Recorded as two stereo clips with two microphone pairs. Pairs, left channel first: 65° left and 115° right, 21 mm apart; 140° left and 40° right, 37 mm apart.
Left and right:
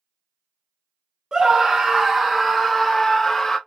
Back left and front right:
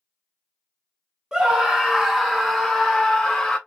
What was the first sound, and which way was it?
A scream, 100° right.